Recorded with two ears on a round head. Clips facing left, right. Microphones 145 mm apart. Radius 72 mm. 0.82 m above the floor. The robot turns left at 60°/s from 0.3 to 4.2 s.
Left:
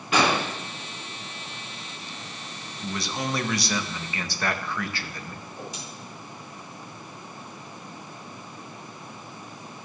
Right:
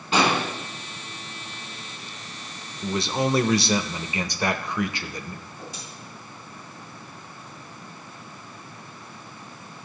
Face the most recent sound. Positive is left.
turn(degrees=75)  # may be behind; listen again after turning